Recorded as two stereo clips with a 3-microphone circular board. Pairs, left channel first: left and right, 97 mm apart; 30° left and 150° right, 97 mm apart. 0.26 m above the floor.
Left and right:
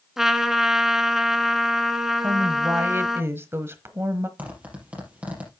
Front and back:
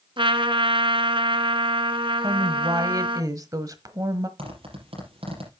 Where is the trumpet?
175° right, 1.2 m.